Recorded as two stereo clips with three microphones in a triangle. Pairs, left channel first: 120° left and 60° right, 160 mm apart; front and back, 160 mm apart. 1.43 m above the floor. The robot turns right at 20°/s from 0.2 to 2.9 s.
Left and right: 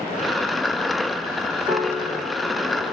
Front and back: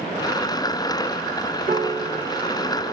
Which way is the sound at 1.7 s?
5° left.